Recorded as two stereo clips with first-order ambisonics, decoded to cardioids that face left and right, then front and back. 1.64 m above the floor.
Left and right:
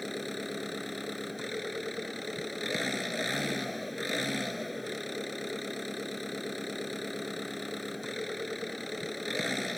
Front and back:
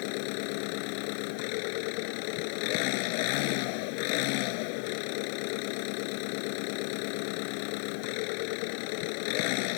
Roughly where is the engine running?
Ahead.